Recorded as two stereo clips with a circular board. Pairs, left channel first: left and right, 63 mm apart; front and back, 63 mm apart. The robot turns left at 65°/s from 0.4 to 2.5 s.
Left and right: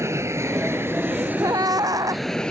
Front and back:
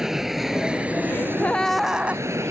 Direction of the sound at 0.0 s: 100° right.